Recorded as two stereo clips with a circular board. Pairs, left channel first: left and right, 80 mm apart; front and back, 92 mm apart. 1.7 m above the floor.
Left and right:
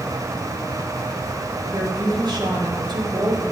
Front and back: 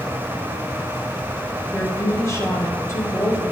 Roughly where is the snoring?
No snoring in this recording.